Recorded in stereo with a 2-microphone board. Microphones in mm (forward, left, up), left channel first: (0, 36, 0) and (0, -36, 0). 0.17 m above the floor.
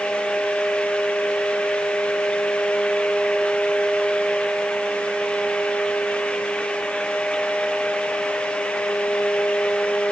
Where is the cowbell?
I don't hear a cowbell.